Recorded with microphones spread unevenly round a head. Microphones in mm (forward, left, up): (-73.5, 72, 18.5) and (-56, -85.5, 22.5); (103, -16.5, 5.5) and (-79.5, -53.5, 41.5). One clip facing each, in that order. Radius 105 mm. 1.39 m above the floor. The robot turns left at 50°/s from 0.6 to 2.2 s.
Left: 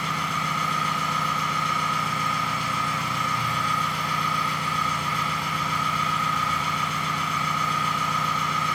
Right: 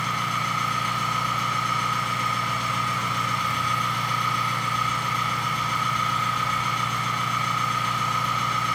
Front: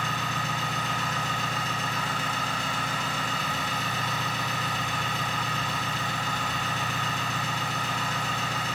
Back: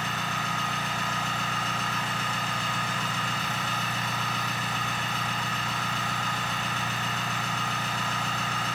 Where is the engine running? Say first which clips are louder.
Even, front 1 dB; 100° left, 1.2 m; by 8.8 s 20° left, 1.2 m.